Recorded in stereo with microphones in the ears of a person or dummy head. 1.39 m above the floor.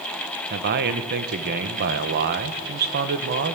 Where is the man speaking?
55° right (ahead or behind), 1.4 m.